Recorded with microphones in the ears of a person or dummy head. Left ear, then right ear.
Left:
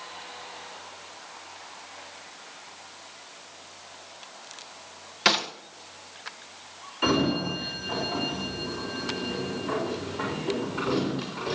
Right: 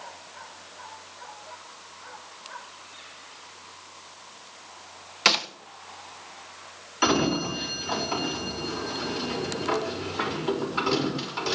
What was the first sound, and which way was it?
A gunshot, 20° right (ahead or behind).